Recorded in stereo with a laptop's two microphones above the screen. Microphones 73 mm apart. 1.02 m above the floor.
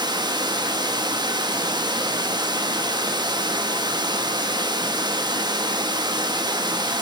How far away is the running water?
About 1.0 m.